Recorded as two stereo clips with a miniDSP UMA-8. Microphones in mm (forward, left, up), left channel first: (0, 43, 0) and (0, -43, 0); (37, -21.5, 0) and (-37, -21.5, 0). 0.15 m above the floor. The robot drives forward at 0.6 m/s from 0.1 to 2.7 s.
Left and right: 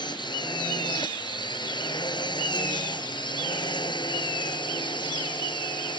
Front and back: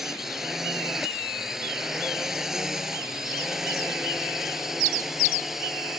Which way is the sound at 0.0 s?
95° left.